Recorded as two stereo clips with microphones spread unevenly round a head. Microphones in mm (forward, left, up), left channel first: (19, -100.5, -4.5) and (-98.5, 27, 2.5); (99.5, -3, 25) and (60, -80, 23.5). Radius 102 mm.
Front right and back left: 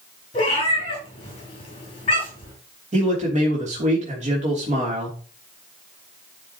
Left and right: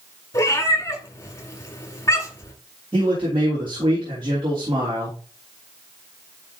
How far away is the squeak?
No squeak in this recording.